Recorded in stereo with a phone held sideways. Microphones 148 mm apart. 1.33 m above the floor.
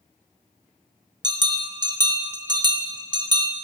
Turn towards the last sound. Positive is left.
turn(degrees=-30)  # may be behind; listen again after turning